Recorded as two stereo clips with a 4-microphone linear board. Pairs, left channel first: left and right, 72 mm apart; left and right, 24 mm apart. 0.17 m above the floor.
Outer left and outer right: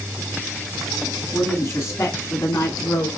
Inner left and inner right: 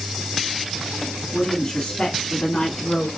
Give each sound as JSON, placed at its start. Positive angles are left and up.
{"t": 1.3, "sound": "a woman speaking", "side_deg": 30, "distance_m": 1.8}